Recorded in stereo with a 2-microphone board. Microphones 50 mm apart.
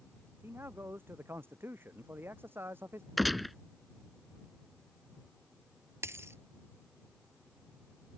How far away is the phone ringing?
No phone ringing in this recording.